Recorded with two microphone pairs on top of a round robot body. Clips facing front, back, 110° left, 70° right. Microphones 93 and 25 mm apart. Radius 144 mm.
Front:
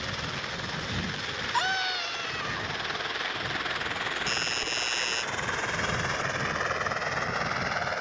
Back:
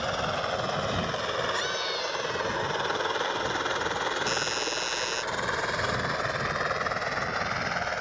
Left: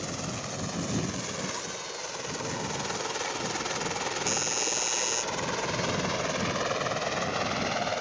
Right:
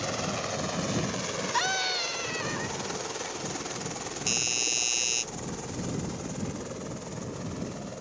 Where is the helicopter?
145° right; by 8.0 s 95° left.